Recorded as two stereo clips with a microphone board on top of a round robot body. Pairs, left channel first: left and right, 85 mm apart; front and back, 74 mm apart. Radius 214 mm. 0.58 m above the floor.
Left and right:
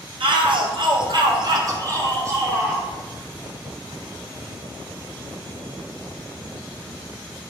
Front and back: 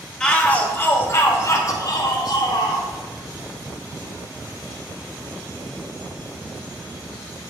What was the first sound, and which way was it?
A shout, 80° right.